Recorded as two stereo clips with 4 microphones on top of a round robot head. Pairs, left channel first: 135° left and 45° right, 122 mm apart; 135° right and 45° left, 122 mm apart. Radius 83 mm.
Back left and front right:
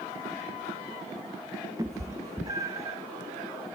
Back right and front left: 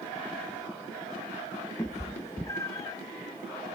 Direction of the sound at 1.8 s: 85° right.